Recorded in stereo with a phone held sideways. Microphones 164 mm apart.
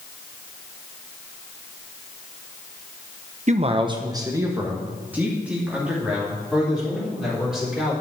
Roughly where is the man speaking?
Right.